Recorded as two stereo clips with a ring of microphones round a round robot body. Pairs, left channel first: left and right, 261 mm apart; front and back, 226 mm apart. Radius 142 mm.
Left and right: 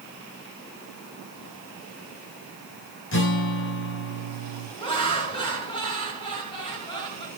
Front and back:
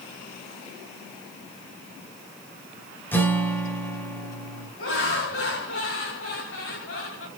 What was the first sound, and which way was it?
A guitar, 80° left.